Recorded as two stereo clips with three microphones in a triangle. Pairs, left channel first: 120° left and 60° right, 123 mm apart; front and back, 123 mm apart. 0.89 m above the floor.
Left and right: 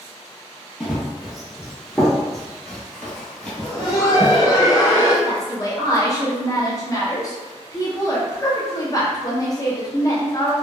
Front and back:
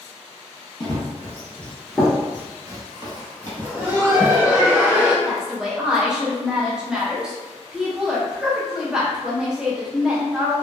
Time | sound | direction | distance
0.8 | running footsteps | 25° left | 1.0 m
3.6 | laughter | 125° left | 0.6 m
5.2 | a woman speaking | 105° left | 0.7 m